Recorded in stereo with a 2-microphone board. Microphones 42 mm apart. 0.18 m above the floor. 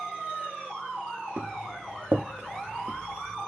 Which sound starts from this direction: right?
Footsteps, at 1.4 s.